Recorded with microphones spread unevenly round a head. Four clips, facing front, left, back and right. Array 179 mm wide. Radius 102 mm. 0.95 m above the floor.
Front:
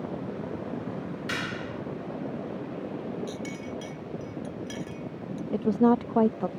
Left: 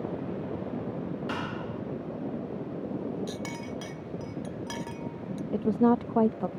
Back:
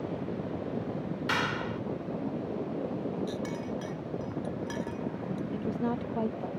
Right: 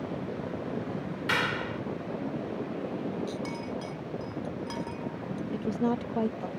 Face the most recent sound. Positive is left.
turn(degrees=20)